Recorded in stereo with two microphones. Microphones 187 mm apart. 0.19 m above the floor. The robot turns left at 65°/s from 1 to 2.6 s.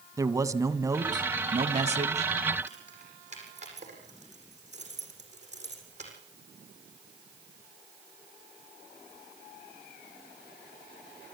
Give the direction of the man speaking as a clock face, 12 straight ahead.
1 o'clock.